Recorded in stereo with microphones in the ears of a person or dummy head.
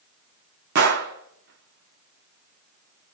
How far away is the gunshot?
About 1.2 m.